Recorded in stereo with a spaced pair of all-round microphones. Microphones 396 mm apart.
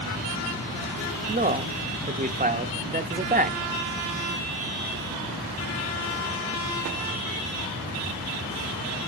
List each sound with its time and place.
1.3 s a man speaking: 20° right (ahead or behind), 0.6 m